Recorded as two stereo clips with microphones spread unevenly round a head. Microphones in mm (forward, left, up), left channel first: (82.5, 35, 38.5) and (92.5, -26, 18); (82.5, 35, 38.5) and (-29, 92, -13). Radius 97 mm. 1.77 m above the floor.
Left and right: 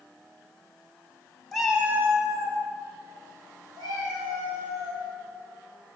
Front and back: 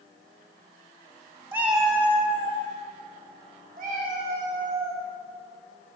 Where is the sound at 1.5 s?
55° left, 1.1 m; by 2.6 s 50° right, 1.6 m.